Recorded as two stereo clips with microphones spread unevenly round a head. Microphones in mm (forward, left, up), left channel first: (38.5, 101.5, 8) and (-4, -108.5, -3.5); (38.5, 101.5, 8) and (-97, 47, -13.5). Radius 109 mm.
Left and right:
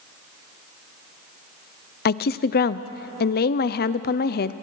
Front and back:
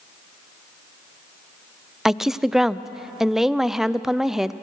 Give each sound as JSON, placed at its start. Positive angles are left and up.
{"t": 2.0, "sound": "a woman speaking", "azimuth_deg": 105, "distance_m": 0.5}